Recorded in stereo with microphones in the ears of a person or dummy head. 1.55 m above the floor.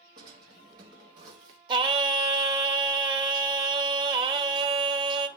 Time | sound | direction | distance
0.2 | a drawer | 25° right (ahead or behind) | 0.9 m
1.7 | singing | 25° right (ahead or behind) | 0.9 m